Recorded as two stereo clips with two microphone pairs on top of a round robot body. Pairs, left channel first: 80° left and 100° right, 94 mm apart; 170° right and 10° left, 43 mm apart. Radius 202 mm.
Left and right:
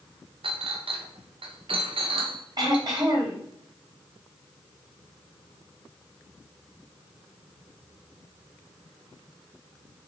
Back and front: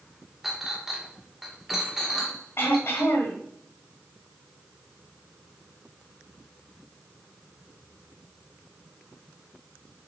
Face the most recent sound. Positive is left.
turn(degrees=-145)